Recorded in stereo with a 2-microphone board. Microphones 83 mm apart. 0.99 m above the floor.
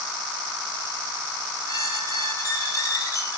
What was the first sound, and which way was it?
A squeak, 40° left (ahead or behind).